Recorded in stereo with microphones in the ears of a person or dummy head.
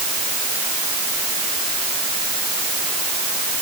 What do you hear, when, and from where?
Only background noise.